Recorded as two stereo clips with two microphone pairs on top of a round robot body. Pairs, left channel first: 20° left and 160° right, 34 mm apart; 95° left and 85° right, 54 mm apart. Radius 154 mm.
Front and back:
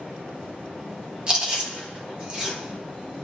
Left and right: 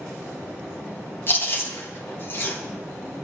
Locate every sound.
1.3 s chewing: 140° left, 2.5 m